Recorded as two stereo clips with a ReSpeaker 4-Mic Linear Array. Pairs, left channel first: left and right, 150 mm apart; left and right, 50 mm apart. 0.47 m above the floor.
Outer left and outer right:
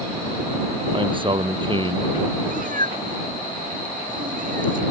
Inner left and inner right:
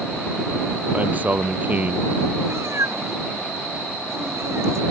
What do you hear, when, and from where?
0.9 s a man speaking: 35° right (ahead or behind)
2.5 s a cat meowing: 65° right (ahead or behind)